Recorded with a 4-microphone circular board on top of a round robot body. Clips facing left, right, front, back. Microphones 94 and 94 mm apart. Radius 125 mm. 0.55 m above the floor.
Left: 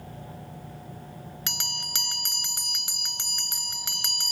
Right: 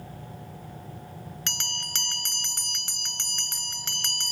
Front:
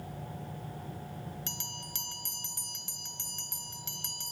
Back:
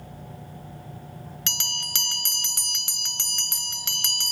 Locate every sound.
1.5 s a bell: 170° left